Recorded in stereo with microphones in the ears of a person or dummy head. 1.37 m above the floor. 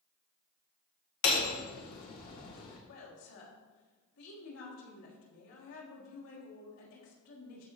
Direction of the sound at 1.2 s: 50° left (ahead or behind).